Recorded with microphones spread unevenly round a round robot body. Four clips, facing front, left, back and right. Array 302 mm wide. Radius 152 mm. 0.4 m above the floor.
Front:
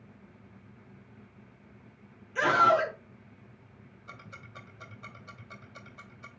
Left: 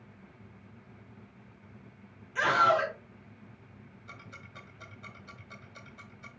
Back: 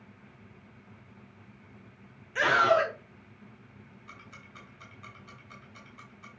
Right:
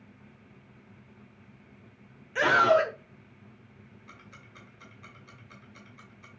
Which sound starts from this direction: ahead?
Ticking, at 4.1 s.